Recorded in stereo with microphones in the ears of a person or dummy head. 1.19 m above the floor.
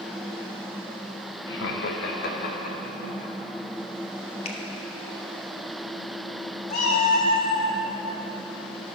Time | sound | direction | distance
1.5 | laughter | 65° left (ahead or behind) | 1.4 m
4.5 | a finger snap | 35° left (ahead or behind) | 1.1 m
6.7 | a cat meowing | 45° left (ahead or behind) | 1.6 m